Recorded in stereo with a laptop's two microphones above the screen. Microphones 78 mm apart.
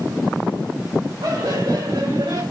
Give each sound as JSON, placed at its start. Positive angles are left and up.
{"t": 1.2, "sound": "laughter", "side_deg": -70, "distance_m": 3.5}